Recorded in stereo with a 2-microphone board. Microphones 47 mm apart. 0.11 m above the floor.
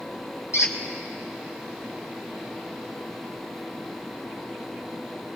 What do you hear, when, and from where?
0.5 s a squeak: 70° left (ahead or behind), 1.4 m